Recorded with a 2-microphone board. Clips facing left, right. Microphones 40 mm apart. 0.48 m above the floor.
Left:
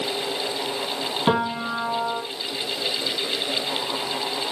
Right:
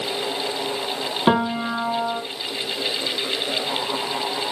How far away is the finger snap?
No finger snap in this recording.